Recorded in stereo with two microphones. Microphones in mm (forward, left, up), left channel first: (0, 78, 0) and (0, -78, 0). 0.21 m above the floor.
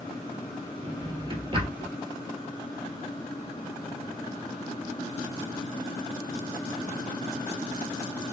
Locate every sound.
0.8 s a drawer: 35° right (ahead or behind), 1.3 m